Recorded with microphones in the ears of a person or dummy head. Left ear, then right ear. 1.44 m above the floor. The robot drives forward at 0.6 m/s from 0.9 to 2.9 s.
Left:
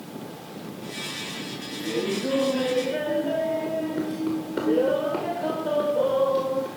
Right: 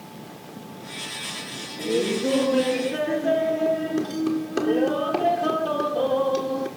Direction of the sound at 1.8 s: 75° right (ahead or behind).